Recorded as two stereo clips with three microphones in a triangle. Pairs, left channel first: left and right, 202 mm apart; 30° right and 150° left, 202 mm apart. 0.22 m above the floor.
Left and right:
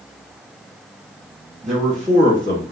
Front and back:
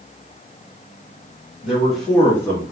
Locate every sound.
1.6 s a man speaking: 130° right, 1.2 m; by 2.7 s 95° right, 1.4 m